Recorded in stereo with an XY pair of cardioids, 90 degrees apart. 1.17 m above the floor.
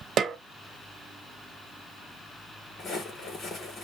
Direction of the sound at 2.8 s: 65° left.